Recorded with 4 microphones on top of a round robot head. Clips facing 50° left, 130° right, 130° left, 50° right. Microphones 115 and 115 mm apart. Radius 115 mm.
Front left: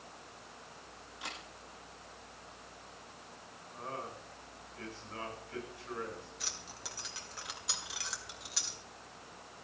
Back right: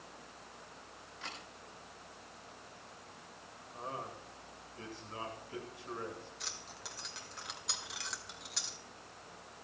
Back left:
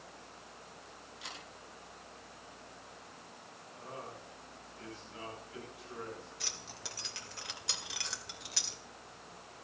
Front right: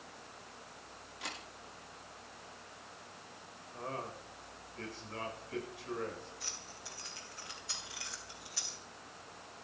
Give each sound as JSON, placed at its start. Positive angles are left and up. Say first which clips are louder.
{"t": 1.2, "sound": "a camera shutter", "louder": "front left 2 dB, front right 4 dB", "azimuth_deg": -25, "distance_m": 9.5}
{"t": 3.7, "sound": "a man speaking", "louder": "even, front right 5 dB", "azimuth_deg": -60, "distance_m": 8.5}
{"t": 6.4, "sound": "keys jangling", "louder": "front left 1 dB, back left 2 dB", "azimuth_deg": 135, "distance_m": 1.9}